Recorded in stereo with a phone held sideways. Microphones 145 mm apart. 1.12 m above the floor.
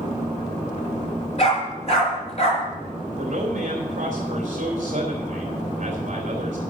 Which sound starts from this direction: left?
A dog barking, at 1.4 s.